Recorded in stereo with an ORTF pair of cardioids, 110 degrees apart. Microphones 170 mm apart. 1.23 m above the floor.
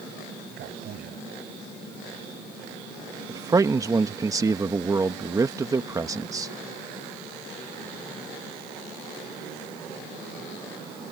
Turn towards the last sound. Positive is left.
turn(degrees=-20)